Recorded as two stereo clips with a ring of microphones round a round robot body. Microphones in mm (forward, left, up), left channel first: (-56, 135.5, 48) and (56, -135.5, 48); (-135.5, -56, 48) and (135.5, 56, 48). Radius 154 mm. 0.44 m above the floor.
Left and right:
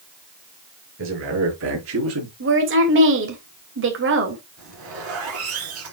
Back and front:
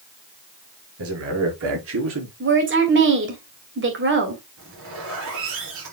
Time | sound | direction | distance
1.0 | a man speaking | 20° right | 7 m
2.4 | a woman speaking | 25° right | 2.5 m
4.6 | a zipper | 25° right | 7.5 m